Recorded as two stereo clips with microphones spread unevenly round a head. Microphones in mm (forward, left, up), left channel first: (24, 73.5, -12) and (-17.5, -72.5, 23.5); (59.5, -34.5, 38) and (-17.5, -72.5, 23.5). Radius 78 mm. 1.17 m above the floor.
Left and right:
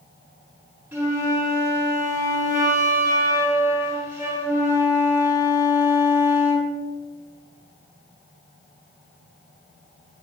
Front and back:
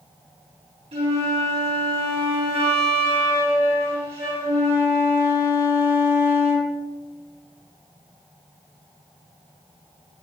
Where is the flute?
175° left, 6 m.